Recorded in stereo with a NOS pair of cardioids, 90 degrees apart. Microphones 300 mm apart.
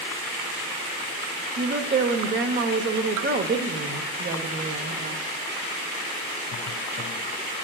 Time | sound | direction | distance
1.6 | a woman speaking | 40° right | 1.0 m